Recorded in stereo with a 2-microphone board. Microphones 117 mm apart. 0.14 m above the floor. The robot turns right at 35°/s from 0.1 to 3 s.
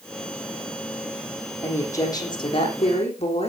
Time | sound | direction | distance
1.6 | a woman speaking | 15° left | 7.5 m